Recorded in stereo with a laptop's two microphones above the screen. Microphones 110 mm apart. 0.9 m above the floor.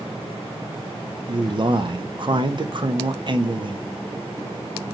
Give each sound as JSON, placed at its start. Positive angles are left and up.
{"t": 1.3, "sound": "a man speaking", "side_deg": -45, "distance_m": 0.7}